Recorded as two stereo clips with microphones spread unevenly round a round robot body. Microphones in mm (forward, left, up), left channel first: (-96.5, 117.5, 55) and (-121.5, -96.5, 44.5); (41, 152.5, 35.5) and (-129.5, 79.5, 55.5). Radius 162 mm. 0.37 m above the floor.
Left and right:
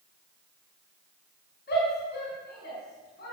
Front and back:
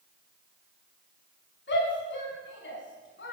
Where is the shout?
30° left, 4.5 m.